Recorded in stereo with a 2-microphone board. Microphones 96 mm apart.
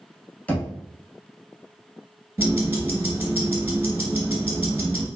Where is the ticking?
25° right (ahead or behind), 1.1 m.